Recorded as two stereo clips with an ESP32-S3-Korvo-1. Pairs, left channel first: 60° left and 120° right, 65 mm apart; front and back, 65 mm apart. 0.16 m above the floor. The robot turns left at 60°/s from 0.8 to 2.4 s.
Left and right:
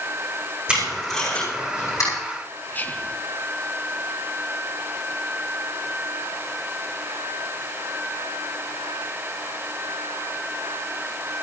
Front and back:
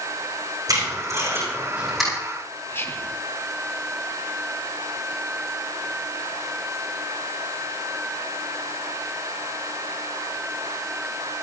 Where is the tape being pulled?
165° left, 9.5 m; by 2.1 s 90° left, 9.5 m.